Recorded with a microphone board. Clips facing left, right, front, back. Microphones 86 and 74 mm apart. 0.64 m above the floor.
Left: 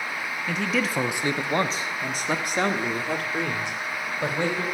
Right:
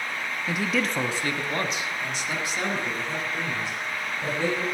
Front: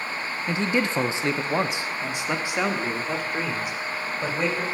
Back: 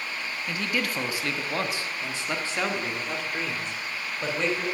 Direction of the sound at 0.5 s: 20° right.